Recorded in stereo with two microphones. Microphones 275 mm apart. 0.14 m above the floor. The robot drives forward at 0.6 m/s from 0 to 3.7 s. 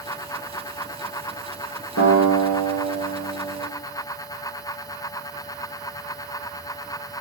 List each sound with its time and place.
2.0 s a guitar: 70° left (ahead or behind), 4 m; by 3.6 s 80° left, 3.5 m